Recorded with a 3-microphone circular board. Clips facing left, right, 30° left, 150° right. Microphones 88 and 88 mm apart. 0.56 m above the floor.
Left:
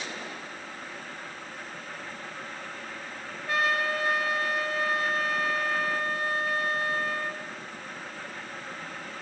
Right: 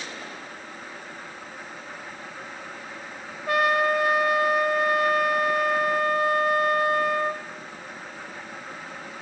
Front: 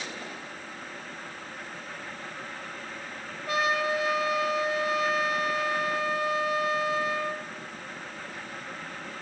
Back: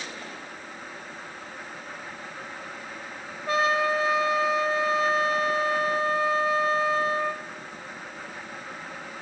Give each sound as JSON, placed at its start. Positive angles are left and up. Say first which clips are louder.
{"t": 3.5, "sound": "a trumpet", "louder": "right 6 dB, back 3 dB", "azimuth_deg": -95, "distance_m": 3.5}